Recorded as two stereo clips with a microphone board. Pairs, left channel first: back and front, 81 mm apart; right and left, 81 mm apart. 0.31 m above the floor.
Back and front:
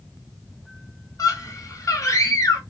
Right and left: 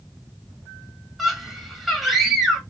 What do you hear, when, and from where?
1.2 s a scream: 175° left, 1.4 m